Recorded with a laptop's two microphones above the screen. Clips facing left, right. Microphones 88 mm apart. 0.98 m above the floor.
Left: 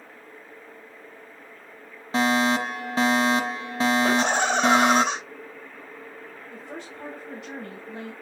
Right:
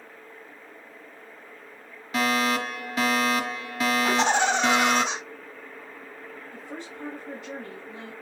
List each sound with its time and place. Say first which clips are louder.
2.1 s a fire alarm: left 3 dB; 30° left (ahead or behind), 2.0 m
4.0 s laughter: even; 60° left (ahead or behind), 4.5 m
6.5 s a woman speaking: left 1 dB; 85° left, 6.5 m